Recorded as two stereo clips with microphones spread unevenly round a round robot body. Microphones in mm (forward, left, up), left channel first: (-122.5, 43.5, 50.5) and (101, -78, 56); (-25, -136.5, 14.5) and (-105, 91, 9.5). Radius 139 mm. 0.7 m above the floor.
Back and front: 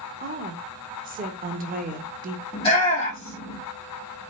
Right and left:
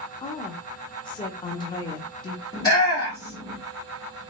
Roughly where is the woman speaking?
Ahead.